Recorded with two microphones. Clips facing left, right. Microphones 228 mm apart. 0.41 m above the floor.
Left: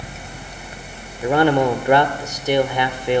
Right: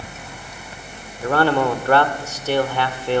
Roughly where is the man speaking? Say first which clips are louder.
Left 2 dB; centre.